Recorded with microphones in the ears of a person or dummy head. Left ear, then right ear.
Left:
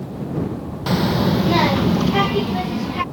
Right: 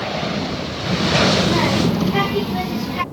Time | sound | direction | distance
0.9 | a child speaking | 35° left (ahead or behind) | ?